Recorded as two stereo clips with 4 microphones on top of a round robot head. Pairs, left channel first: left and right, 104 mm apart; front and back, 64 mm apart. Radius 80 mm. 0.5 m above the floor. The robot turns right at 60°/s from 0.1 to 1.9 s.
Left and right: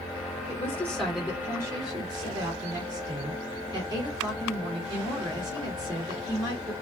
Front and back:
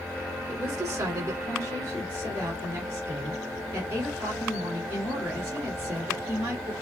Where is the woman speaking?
145° left, 3 m; by 6.7 s 130° right, 3 m.